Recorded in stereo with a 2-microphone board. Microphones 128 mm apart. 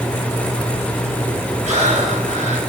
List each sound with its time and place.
1.6 s breathing: 70° right (ahead or behind), 3.5 m